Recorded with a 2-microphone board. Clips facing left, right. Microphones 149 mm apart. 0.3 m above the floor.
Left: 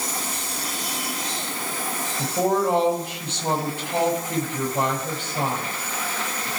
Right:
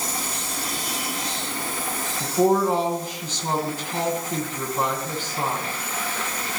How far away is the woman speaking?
About 6 m.